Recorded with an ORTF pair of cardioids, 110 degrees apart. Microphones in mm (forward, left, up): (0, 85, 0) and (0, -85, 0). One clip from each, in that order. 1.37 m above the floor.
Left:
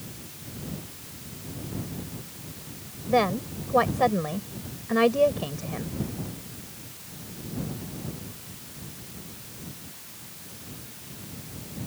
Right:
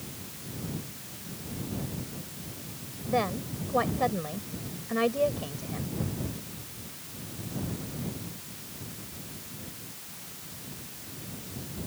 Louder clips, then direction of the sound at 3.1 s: Left 5 dB; 35° left.